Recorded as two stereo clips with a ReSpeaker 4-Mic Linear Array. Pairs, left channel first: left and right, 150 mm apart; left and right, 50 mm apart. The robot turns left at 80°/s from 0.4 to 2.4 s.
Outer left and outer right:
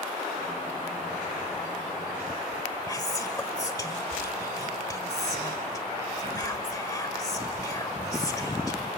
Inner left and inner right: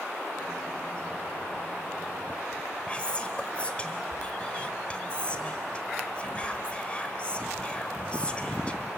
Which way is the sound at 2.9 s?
25° left (ahead or behind).